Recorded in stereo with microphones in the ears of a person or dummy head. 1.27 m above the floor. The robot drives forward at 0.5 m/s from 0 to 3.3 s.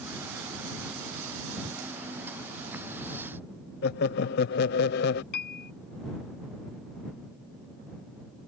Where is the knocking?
I don't hear knocking.